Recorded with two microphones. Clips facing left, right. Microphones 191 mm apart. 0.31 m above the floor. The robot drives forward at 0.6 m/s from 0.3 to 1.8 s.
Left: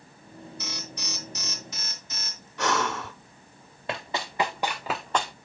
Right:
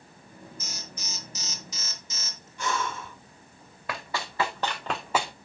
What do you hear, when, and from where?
0.6 s an alarm: 60° left (ahead or behind), 2.5 m; by 2.5 s 55° left (ahead or behind), 2.5 m
2.6 s breathing: 65° left (ahead or behind), 0.9 m
3.9 s running footsteps: 20° left (ahead or behind), 2 m; by 5.3 s 15° right (ahead or behind), 0.8 m